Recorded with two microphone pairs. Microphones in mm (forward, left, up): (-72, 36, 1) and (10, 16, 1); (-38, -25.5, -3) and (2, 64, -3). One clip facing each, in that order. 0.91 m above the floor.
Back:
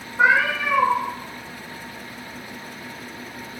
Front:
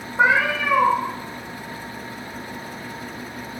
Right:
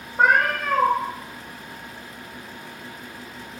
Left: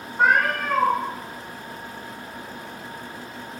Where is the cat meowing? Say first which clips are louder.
Even, right 1 dB; 75° right, 1.5 m.